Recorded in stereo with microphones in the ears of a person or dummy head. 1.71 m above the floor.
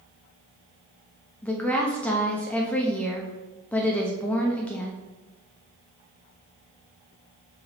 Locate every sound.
1.4 s a woman speaking: 10° left (ahead or behind), 0.9 m